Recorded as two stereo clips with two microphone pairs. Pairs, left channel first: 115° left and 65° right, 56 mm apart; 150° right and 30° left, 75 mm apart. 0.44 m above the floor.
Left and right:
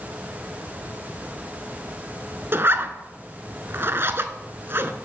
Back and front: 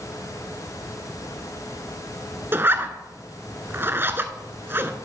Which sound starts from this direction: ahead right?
A zipper, at 2.5 s.